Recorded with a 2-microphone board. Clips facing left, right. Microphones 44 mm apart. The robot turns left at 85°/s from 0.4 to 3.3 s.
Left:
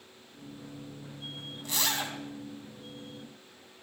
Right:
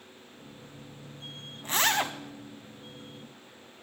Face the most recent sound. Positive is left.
turn(degrees=175)